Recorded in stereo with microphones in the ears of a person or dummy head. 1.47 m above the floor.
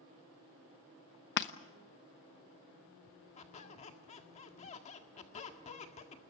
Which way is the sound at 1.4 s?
55° left (ahead or behind).